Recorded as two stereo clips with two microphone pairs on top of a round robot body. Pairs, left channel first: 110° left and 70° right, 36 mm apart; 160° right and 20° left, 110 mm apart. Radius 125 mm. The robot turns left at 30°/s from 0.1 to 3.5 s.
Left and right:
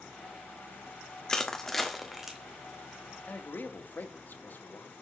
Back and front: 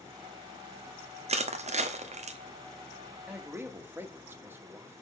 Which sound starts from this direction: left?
A man speaking, at 3.3 s.